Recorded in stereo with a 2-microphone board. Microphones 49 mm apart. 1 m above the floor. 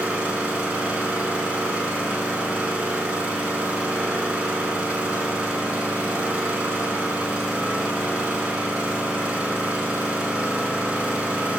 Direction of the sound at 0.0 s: 20° right (ahead or behind).